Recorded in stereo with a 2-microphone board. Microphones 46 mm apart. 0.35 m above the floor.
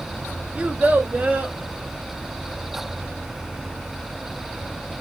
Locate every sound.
0.6 s a child speaking: 25° right (ahead or behind), 0.7 m; by 1.6 s 30° right (ahead or behind), 1.5 m